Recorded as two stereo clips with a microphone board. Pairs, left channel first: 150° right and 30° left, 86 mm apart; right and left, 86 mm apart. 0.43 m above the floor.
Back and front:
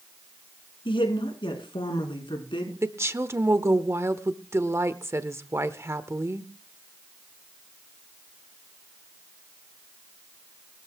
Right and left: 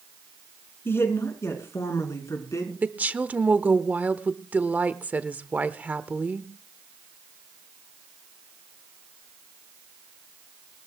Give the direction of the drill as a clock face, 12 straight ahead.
I don't hear a drill.